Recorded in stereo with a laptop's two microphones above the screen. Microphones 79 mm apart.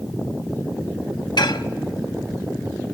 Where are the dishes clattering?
70° left (ahead or behind), 0.8 m.